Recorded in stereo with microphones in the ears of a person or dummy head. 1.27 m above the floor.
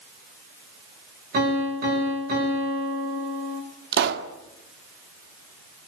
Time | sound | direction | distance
1.3 | a piano | 50° right (ahead or behind) | 7 m
3.9 | a pop | 65° right (ahead or behind) | 1.7 m